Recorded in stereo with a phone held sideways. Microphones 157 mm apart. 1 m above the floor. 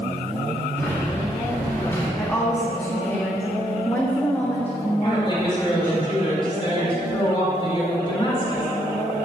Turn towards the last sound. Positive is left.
turn(degrees=35)  # may be behind; listen again after turning